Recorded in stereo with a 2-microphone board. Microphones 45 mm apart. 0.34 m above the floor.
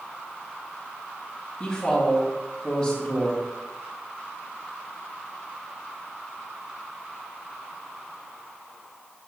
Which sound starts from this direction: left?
A woman speaking, at 1.6 s.